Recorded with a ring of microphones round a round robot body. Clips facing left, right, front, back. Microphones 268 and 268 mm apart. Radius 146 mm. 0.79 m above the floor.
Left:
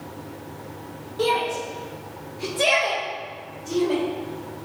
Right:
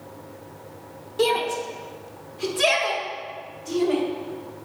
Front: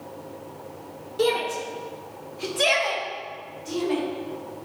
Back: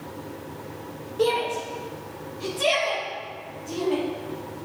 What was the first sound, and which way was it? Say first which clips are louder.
A shout: right 2 dB, even; 45° right.